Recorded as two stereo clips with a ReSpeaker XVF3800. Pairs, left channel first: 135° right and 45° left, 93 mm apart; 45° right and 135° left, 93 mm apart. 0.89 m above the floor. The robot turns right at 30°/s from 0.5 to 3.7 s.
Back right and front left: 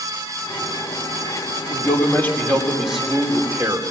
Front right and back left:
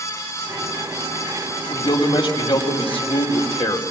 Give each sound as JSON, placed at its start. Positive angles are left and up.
{"t": 1.7, "sound": "a man speaking", "azimuth_deg": -80, "distance_m": 3.5}